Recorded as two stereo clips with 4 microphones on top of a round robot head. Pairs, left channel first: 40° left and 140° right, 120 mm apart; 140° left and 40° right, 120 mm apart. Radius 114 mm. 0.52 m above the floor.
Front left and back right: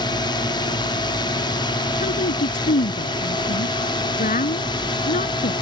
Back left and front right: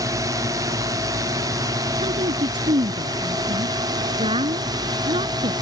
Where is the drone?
10° left; by 5.6 s 5° left.